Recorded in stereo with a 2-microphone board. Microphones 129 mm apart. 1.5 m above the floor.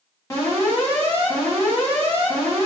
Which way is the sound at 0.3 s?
20° left (ahead or behind).